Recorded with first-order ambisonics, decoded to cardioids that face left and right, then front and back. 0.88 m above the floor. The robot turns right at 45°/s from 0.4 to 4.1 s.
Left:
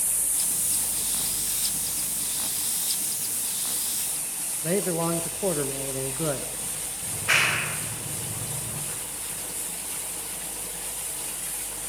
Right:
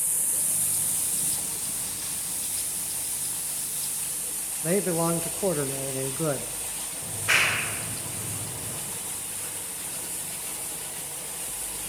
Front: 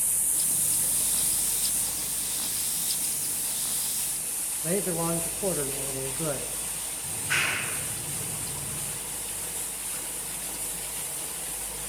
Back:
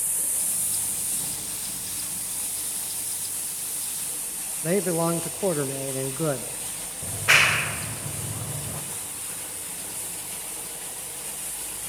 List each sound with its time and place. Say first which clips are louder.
4.6 s a man speaking: right 1 dB, back 5 dB; 160° right, 0.8 m
7.0 s a clap: even, back 9 dB; straight behind, 3 m